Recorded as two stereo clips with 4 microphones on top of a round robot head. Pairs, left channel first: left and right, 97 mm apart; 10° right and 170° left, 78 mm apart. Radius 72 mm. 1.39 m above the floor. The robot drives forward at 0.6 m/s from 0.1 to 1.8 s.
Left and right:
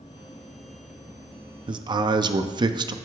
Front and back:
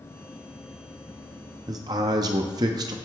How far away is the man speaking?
About 0.5 m.